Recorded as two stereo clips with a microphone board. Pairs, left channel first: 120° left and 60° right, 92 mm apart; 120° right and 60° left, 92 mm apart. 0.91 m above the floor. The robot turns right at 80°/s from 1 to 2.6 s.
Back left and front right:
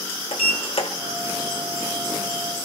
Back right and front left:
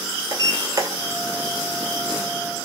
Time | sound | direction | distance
0.3 | a sliding door | 115° left | 2 m